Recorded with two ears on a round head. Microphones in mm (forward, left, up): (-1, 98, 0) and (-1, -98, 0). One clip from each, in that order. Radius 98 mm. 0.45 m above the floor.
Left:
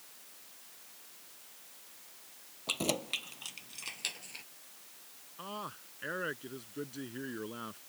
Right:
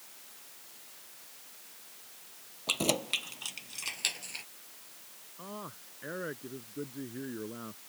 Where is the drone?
No drone in this recording.